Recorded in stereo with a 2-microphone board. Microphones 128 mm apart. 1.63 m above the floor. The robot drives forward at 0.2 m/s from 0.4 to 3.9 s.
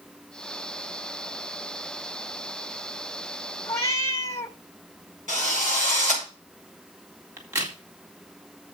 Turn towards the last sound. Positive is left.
turn(degrees=-25)  # may be behind; listen again after turning